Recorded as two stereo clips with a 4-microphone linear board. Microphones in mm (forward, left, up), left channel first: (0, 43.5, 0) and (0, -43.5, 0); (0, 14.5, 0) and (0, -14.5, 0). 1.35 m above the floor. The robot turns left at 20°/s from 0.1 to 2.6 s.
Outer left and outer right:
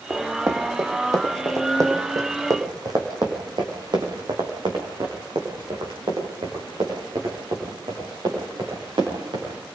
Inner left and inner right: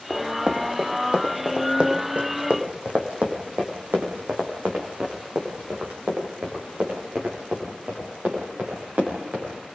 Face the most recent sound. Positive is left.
turn(degrees=-80)